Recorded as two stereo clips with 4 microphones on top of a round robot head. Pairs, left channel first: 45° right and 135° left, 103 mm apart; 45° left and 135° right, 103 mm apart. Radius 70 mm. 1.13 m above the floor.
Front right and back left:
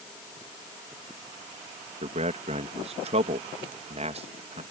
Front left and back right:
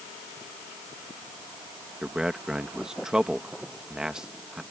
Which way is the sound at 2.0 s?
145° left.